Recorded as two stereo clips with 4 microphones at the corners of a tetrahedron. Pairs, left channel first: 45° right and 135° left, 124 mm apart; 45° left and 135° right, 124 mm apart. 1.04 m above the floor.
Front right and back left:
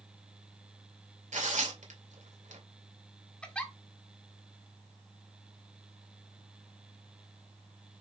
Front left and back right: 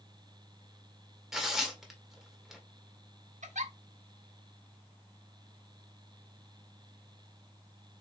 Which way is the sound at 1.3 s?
140° left.